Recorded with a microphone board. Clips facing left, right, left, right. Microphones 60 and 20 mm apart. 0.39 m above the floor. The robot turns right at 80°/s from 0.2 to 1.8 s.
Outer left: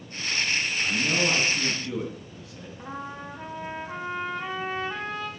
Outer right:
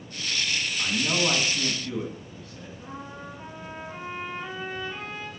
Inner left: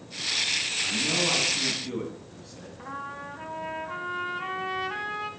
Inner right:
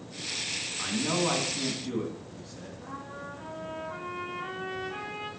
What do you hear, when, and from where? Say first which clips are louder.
0.8 s a man speaking: even, even; 70° right, 3 m; by 2.7 s 10° left, 3 m
2.8 s a trumpet: outer left 4 dB, inner left 6 dB; 70° left (ahead or behind), 2.5 m